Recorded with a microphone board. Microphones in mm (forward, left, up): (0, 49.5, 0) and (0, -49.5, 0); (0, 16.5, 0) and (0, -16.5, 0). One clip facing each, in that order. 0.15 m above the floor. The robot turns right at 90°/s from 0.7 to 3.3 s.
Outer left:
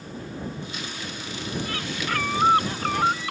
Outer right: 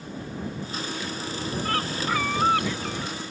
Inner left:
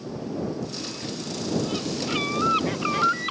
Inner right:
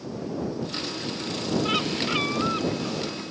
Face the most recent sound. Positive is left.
turn(degrees=95)